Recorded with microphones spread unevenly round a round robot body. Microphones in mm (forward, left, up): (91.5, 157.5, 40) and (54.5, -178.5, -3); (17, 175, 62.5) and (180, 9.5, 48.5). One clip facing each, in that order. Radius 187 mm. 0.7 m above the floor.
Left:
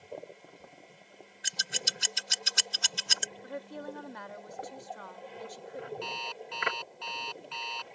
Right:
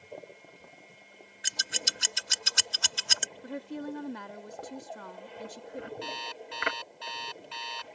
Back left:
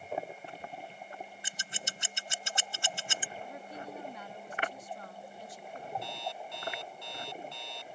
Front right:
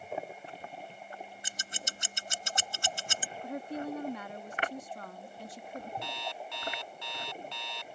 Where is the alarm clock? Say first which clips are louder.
Even, even; 30° right.